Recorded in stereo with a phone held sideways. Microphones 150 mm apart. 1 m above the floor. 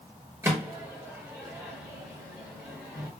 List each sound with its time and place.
0.4 s a microwave: 20° right (ahead or behind), 1.1 m